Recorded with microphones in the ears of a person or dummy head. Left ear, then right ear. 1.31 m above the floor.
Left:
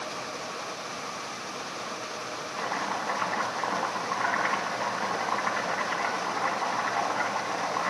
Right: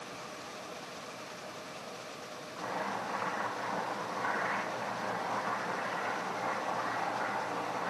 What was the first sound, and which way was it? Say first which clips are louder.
Chopping: left 5 dB; 55° left (ahead or behind).